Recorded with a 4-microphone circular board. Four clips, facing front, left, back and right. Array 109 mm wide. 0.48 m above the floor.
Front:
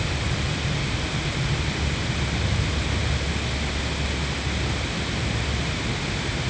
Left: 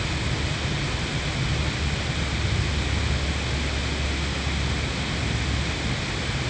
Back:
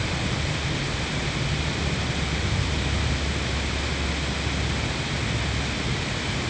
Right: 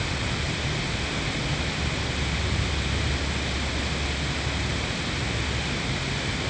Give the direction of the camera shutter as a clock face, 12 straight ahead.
I don't hear a camera shutter.